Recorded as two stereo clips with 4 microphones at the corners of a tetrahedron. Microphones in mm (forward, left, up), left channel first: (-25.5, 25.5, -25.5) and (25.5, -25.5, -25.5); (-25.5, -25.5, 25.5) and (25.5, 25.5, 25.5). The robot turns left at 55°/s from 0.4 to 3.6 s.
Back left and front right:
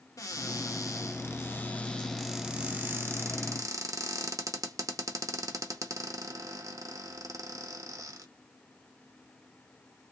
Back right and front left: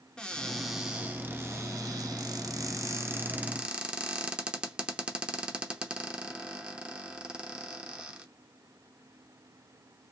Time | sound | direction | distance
0.2 | a cupboard door | 150° left | 0.7 m